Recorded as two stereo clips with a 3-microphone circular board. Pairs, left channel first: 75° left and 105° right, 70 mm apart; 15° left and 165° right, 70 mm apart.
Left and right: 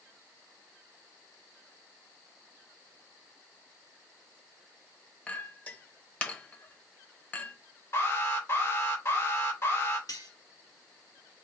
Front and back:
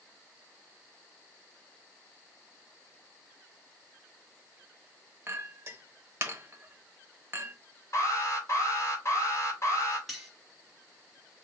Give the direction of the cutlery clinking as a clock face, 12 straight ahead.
9 o'clock.